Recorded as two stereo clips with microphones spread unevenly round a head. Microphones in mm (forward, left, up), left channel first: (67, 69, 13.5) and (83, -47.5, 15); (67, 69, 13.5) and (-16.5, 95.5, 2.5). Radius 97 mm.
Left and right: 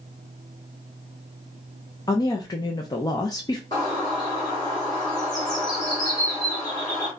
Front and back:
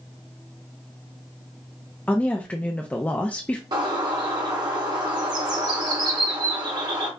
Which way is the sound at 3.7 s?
155° left.